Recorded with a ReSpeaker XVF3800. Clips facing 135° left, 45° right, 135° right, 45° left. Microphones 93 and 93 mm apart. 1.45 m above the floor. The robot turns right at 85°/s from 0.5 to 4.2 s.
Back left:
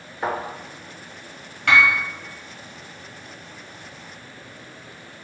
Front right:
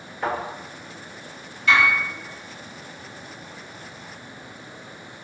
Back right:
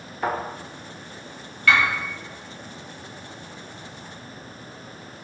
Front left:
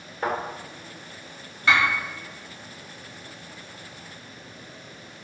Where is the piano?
110° left, 0.8 m; by 1.9 s 130° left, 0.8 m.